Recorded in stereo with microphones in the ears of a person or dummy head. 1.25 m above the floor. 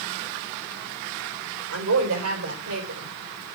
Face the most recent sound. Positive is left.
turn(degrees=-85)